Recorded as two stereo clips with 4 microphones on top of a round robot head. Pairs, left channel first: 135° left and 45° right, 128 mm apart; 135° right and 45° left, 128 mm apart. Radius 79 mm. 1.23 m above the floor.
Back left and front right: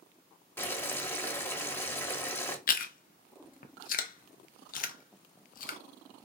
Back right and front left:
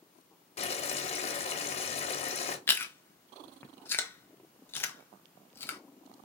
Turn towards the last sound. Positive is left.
turn(degrees=150)